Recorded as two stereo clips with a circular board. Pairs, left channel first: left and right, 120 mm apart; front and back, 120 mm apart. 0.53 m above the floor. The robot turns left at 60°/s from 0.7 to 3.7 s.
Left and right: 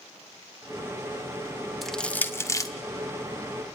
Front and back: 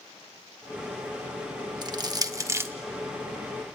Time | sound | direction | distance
1.8 | crushing | straight behind | 1.0 m